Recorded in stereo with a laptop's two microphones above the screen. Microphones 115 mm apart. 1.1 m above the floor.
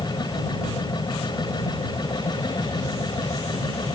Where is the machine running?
40° left (ahead or behind).